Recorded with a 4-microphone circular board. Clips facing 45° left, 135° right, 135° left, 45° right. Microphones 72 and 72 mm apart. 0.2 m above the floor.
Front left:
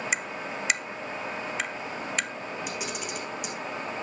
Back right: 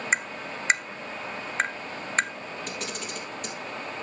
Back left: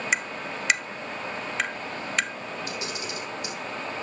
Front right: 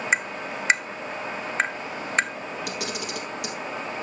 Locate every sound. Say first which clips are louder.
0.1 s tapping: back right 2 dB, front right 4 dB; 95° right, 0.5 m
2.7 s a camera shutter: front left 1 dB, front right 2 dB; 35° right, 3 m